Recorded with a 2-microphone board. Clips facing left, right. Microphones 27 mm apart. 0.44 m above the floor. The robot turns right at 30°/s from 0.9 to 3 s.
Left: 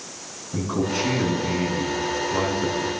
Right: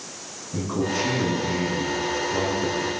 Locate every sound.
0.5 s a man speaking: 25° left, 5 m; by 2.9 s 85° left, 5 m